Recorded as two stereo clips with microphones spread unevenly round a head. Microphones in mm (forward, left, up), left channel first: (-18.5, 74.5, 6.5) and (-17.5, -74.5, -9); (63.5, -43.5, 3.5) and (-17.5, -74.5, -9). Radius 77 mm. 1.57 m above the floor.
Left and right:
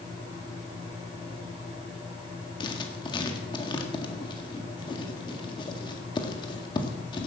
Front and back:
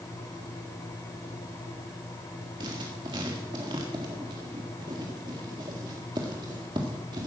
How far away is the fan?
About 9 m.